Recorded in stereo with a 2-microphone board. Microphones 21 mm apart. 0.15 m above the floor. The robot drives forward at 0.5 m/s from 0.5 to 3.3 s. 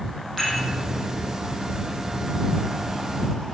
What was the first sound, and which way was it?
Dishes clattering, centre (ahead or behind).